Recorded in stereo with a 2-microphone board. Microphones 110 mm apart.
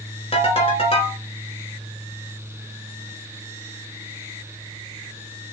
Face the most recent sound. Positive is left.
turn(degrees=60)  # may be behind; listen again after turning